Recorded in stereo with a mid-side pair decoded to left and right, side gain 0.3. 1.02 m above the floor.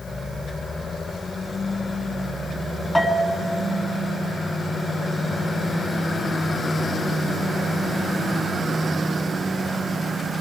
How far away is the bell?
About 1.7 m.